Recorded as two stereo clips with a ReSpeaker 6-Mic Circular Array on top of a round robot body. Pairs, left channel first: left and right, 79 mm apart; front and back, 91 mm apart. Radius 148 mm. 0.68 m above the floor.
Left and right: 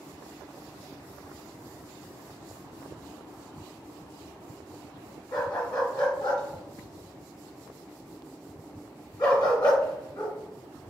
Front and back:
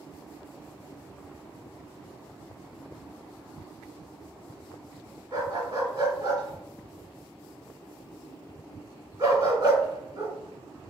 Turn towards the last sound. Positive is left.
turn(degrees=130)